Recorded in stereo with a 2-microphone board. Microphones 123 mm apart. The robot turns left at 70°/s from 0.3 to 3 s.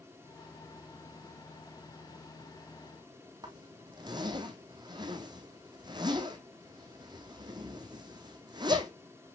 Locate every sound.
3.4 s a zipper: 35° right (ahead or behind), 2 m